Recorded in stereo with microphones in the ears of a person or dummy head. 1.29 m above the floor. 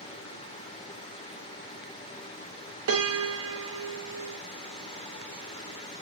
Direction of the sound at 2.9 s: 70° right (ahead or behind).